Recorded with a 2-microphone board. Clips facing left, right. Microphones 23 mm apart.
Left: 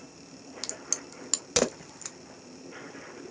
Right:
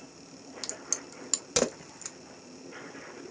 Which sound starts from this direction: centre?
A crack, at 0.6 s.